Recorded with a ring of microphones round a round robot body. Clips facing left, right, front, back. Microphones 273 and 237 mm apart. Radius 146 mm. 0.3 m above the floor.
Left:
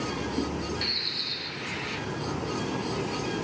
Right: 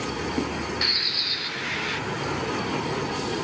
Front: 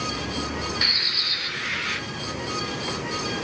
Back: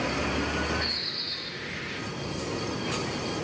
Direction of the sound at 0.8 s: 25° right.